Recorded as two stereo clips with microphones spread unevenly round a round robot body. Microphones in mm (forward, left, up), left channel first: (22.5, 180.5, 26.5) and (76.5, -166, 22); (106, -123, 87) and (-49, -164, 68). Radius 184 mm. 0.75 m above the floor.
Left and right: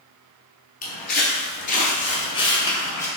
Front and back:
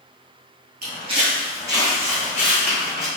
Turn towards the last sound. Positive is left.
turn(degrees=15)